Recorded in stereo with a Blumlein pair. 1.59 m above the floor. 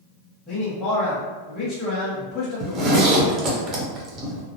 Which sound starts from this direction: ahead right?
A zipper, at 2.6 s.